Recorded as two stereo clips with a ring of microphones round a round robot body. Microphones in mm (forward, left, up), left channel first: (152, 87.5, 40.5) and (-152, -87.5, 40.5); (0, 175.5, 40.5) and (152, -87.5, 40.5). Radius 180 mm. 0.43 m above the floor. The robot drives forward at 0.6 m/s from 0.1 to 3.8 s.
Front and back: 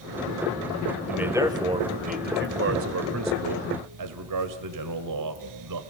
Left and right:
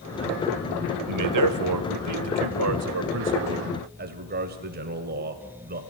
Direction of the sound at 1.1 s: 65° right.